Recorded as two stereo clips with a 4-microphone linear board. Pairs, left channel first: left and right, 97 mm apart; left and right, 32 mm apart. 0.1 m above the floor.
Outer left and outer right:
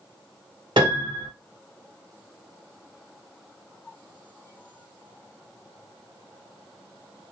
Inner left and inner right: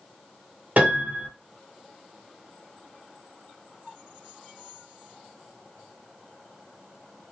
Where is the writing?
I don't hear writing.